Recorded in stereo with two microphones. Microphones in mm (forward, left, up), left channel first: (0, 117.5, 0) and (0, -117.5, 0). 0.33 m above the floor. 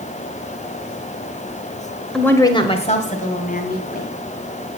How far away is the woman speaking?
About 1.2 m.